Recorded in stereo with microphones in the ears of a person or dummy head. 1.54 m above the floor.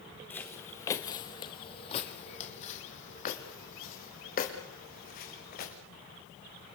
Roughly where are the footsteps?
Centre.